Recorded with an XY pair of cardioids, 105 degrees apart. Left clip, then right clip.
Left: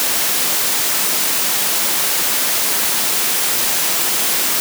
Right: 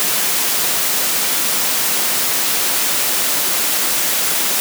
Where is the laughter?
No laughter in this recording.